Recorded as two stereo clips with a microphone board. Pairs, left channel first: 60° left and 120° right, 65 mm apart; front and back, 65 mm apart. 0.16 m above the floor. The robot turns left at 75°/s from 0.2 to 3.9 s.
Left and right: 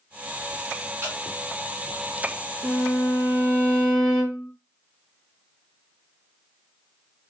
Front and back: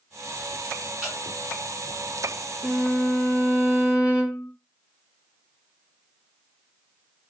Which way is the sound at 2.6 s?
70° left.